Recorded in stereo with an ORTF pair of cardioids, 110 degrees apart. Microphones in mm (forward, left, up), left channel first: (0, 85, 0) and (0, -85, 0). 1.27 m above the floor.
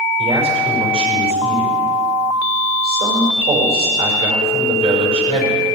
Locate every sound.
0.2 s a man speaking: 35° right, 5.5 m